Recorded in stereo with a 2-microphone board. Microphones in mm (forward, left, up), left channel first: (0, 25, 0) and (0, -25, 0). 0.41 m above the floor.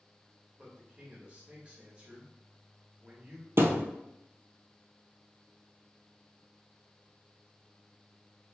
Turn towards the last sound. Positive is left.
turn(degrees=-55)  # may be behind; listen again after turning